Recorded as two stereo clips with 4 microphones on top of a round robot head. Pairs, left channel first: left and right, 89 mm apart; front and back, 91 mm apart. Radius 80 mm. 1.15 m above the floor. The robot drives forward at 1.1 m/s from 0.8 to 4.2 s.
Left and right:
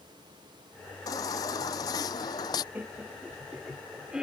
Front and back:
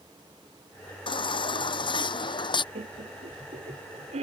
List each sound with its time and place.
1.1 s a baby crying: 30° left; by 2.6 s 35° left
2.8 s laughter: 160° right; by 4.2 s 170° right